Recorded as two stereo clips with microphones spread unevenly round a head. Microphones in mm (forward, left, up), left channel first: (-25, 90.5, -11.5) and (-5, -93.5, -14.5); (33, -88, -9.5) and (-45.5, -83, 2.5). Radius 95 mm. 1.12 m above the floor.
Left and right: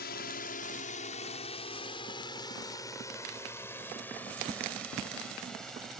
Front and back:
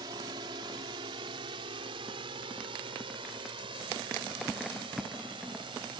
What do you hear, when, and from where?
0.0 s a drone: 130° left; by 6.0 s 175° right